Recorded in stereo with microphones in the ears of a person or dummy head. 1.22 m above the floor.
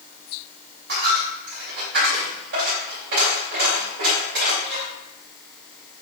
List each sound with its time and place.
0.9 s a dropped coin: 70° right (ahead or behind), 2 m